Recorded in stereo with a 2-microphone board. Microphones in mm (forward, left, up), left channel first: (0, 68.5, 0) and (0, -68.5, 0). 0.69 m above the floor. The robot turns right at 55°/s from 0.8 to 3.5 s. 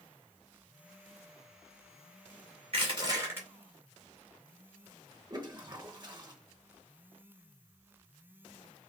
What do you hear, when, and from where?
2.7 s crushing: 55° right, 2 m; by 3.5 s 10° right, 2 m
5.3 s a toilet flushing: 35° right (ahead or behind), 1.0 m